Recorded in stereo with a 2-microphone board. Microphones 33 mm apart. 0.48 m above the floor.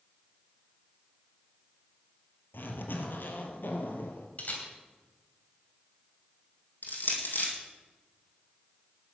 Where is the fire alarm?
I don't hear a fire alarm.